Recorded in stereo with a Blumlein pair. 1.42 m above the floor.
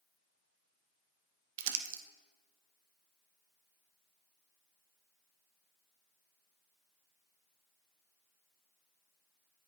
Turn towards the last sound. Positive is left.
turn(degrees=-50)